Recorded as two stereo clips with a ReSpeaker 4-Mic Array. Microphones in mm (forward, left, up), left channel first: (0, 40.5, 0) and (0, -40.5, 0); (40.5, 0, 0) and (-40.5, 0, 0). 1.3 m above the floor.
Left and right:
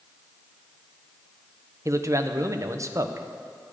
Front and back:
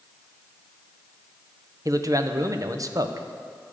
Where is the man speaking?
135° right, 0.7 m.